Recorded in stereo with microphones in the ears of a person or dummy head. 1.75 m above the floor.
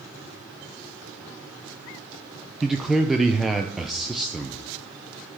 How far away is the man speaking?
About 0.5 m.